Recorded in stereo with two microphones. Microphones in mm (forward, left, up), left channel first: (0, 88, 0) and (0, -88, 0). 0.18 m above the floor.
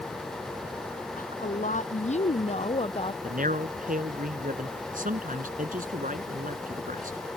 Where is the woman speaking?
50° left (ahead or behind); by 3.1 s 30° left (ahead or behind).